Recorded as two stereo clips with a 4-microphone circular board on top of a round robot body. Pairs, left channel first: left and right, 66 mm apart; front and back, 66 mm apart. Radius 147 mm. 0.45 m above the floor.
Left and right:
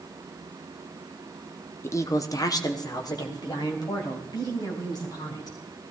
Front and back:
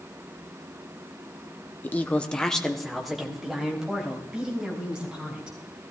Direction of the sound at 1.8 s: 55° left.